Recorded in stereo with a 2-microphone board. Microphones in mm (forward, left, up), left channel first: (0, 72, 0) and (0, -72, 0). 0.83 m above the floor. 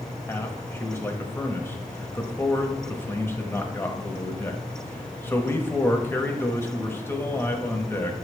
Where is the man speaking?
15° left (ahead or behind), 0.9 m.